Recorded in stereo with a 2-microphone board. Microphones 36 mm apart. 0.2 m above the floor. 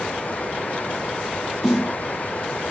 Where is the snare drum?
Centre (ahead or behind), 1.8 m.